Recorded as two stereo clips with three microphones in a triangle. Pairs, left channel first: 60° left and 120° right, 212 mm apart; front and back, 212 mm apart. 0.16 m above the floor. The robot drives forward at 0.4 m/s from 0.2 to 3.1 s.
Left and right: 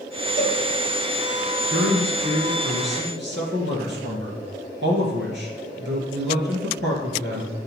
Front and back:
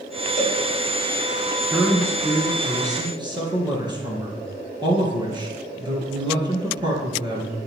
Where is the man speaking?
100° right, 2.5 m; by 7.5 s 115° right, 2.5 m.